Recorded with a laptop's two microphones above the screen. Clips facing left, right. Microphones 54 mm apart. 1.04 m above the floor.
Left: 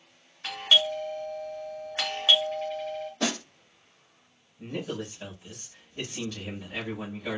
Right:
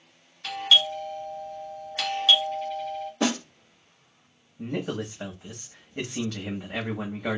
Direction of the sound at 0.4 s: 25° left (ahead or behind).